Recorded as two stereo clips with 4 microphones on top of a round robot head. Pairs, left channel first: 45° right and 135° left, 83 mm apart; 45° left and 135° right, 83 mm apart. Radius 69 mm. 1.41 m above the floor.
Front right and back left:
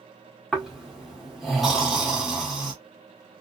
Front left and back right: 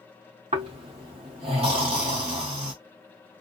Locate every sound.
0.5 s snoring: 140° right, 1.7 m